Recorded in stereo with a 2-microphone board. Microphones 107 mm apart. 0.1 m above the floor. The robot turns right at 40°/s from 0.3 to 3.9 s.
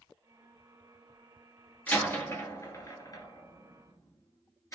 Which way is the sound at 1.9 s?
15° left (ahead or behind).